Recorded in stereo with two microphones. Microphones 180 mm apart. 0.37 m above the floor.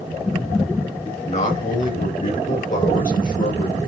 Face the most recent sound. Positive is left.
turn(degrees=50)  # may be behind; listen again after turning